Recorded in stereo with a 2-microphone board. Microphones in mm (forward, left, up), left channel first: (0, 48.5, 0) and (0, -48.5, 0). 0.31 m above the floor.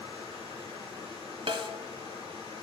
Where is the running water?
55° left (ahead or behind), 4 m.